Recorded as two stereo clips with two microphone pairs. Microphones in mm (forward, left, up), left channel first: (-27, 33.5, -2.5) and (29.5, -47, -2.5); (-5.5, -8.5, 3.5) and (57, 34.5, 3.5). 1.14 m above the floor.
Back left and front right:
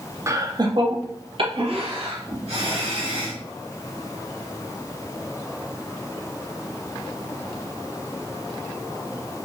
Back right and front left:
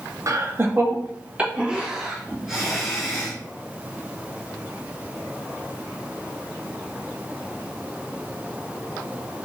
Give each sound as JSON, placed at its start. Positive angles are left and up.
{"t": 0.3, "sound": "laughter", "azimuth_deg": 0, "distance_m": 0.7}